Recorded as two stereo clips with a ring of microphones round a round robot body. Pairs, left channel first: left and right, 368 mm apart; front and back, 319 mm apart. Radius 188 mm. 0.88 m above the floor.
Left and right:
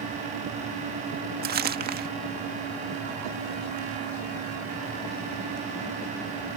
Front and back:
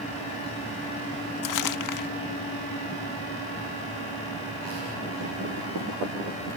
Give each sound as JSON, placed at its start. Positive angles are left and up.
{"t": 1.4, "sound": "crumpling", "azimuth_deg": -25}